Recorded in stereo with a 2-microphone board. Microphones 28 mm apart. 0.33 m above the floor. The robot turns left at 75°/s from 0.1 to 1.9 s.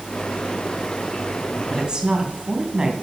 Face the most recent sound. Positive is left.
turn(degrees=-30)  # may be behind; listen again after turning